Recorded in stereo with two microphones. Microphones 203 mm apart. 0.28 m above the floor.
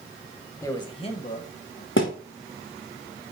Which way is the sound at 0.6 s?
15° left (ahead or behind).